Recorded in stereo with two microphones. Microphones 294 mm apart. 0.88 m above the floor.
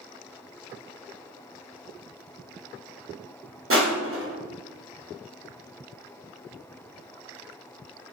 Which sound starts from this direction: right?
Crushing, at 3.7 s.